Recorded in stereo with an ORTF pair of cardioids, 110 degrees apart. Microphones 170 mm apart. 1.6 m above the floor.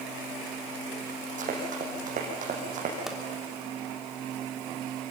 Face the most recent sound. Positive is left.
turn(degrees=-5)